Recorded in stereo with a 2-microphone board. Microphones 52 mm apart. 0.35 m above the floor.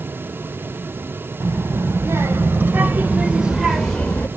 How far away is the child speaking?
About 1.8 m.